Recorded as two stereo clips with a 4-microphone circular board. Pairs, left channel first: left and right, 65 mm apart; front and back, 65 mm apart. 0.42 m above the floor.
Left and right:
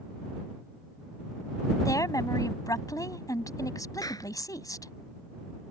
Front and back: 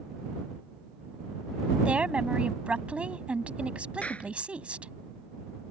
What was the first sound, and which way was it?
A woman speaking, 110° left.